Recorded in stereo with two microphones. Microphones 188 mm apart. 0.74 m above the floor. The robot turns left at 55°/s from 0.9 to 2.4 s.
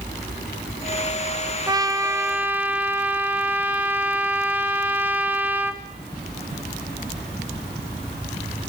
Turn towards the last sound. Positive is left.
turn(degrees=-10)  # may be behind; listen again after turning